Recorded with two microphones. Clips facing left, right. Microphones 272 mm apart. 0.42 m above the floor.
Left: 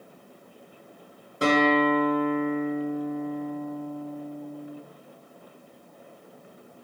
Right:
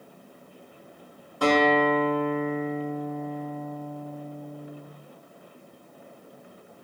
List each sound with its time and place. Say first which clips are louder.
1.4 s a guitar: even; 25° left (ahead or behind), 0.6 m